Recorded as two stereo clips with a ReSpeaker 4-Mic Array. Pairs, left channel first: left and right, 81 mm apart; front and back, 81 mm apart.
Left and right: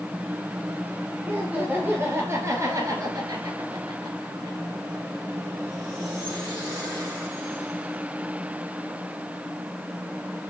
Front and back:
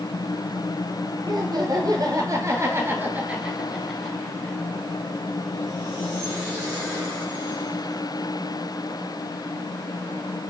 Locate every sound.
1.2 s laughter: 160° right, 3.5 m; by 4.6 s 70° right, 3 m